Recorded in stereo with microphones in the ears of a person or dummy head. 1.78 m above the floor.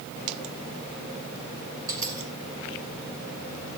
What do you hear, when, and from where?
1.9 s a dropped coin: 15° right (ahead or behind), 5 m